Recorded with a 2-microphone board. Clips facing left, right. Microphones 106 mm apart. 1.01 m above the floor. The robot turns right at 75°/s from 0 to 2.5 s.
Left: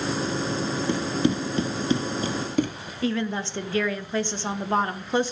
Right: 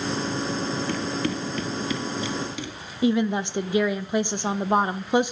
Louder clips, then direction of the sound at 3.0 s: Right 5 dB; 15° right (ahead or behind).